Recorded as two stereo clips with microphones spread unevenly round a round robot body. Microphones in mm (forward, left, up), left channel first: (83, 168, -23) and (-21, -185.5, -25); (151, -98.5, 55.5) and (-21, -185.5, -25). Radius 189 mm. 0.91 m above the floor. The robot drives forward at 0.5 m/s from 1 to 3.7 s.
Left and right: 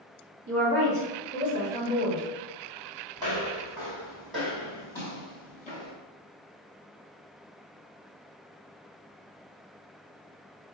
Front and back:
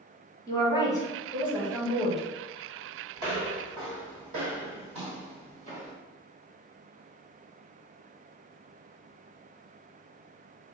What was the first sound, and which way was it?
A woman speaking, 55° right.